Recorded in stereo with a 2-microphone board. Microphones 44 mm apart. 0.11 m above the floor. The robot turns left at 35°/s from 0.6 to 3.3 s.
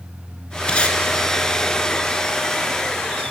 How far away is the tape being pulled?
About 0.8 m.